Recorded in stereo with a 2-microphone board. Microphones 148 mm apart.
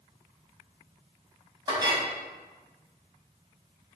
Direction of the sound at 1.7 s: 30° right (ahead or behind).